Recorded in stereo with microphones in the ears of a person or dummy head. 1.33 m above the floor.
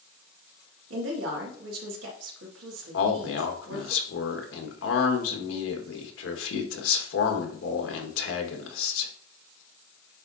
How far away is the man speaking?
About 1.6 m.